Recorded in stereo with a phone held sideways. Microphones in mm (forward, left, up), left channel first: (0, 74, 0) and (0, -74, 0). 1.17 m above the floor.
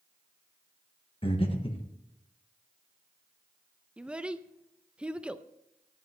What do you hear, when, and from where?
1.2 s breathing: 40° left (ahead or behind), 1.4 m
4.0 s a child speaking: 5° right (ahead or behind), 0.5 m